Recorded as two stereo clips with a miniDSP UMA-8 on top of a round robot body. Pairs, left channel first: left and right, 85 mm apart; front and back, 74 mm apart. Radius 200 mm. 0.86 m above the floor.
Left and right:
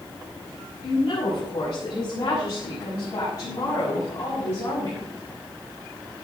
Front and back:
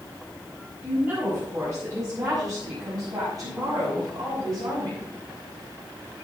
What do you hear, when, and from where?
0.8 s a woman speaking: 120° left, 7 m; by 5.1 s 150° left, 8.5 m